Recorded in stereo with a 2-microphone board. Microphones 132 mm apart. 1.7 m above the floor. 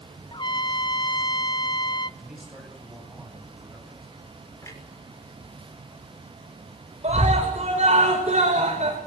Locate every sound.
0.3 s a trumpet: 35° left (ahead or behind), 0.6 m
2.2 s a man speaking: centre (ahead or behind), 9.5 m
4.6 s a clunk: 25° left (ahead or behind), 6 m
7.0 s a scream: 55° right (ahead or behind), 7 m